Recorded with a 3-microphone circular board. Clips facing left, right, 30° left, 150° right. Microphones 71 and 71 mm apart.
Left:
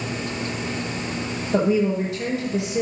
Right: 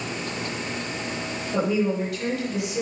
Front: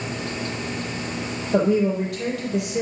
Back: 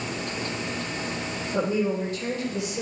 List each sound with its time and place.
1.5 s a woman speaking: 25° left, 5 m